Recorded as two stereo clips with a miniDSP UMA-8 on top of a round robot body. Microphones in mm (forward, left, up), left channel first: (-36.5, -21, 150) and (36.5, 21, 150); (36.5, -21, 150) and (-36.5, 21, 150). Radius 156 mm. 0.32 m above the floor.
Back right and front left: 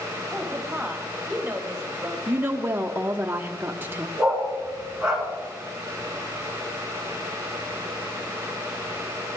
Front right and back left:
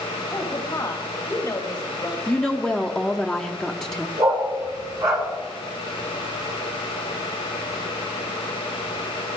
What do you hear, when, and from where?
0.3 s a woman speaking: 45° right, 1.5 m
2.3 s a woman speaking: 45° left, 0.9 m
4.2 s a dog barking: 115° left, 3 m